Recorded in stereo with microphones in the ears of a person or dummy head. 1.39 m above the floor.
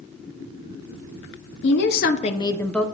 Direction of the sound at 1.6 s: 70° left (ahead or behind).